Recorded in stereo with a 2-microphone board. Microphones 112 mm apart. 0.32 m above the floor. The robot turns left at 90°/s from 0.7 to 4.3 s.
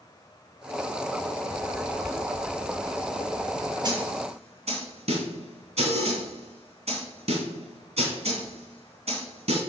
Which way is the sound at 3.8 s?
35° right (ahead or behind).